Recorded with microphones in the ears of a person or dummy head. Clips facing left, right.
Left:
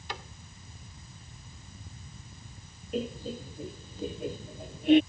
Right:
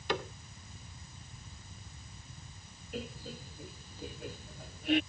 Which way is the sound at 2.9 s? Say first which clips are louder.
Left 9 dB; 25° left (ahead or behind).